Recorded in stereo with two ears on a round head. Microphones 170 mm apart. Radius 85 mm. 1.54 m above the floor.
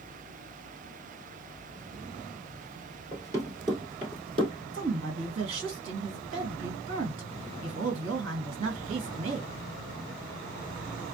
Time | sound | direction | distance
3.1 | running footsteps | 15° right (ahead or behind) | 1.8 m
4.7 | a woman speaking | 70° right (ahead or behind) | 1.7 m